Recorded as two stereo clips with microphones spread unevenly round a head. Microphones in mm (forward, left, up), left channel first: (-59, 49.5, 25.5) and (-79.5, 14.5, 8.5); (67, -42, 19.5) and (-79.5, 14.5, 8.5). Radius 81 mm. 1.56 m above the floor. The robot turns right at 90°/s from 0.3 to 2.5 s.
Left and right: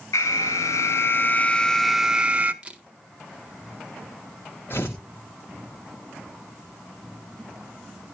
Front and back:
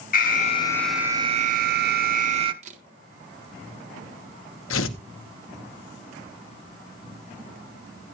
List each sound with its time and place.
0.1 s an alarm: 15° left, 1.1 m; by 2.5 s 145° right, 1.1 m
2.6 s a camera shutter: 155° left, 1.5 m
4.7 s tearing paper: 15° right, 1.1 m